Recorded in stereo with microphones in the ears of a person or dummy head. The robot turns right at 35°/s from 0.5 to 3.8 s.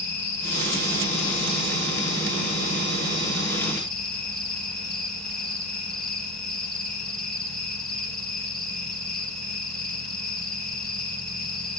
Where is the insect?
60° left, 5.5 m; by 11.8 s 175° left, 5.5 m.